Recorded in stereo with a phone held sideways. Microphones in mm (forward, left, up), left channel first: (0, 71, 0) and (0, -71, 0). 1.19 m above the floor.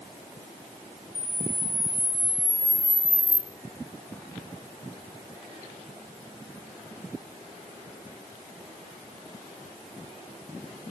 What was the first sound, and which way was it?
A camera shutter, 40° left (ahead or behind).